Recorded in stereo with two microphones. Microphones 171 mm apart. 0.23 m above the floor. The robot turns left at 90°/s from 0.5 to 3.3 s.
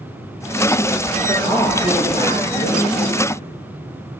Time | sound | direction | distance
1.3 | a man speaking | 155° right | 3.5 m